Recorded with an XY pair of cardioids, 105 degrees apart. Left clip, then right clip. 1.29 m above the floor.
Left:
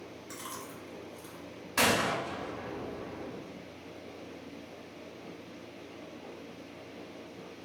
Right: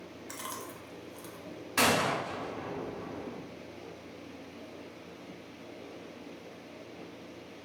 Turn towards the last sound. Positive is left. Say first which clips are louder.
# even
turn(degrees=-10)